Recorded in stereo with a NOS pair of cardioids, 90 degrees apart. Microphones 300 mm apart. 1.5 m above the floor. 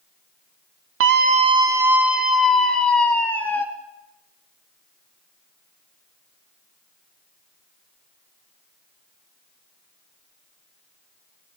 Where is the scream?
50° right, 0.6 m; by 3.6 s 5° left, 3.5 m.